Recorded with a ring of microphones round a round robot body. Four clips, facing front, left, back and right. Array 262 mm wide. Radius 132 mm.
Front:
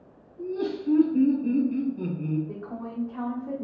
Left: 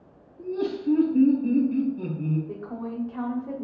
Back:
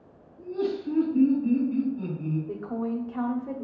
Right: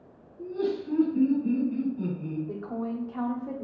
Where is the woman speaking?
140° right, 1.0 m.